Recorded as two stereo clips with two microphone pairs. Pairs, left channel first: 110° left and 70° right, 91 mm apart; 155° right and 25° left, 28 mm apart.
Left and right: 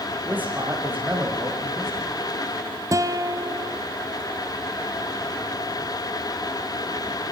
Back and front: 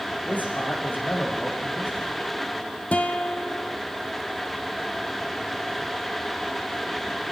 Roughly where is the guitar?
Behind right.